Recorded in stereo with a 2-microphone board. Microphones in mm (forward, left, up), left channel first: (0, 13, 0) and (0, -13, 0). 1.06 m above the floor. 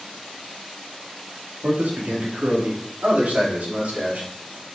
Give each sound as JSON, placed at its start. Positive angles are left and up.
{"t": 1.6, "sound": "a man speaking", "side_deg": -75, "distance_m": 2.5}